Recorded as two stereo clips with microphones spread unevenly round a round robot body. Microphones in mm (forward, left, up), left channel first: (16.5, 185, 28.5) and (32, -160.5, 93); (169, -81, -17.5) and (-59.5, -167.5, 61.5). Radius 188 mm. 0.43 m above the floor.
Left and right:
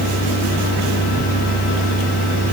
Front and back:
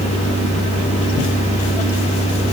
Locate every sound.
Only background noise.